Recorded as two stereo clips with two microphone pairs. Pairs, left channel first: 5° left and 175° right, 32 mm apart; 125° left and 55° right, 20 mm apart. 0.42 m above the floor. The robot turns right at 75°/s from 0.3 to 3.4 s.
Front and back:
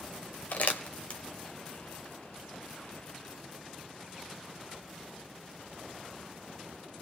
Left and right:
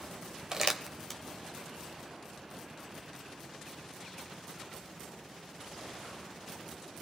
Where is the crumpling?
Straight ahead, 1.1 m; by 1.2 s 50° left, 1.1 m.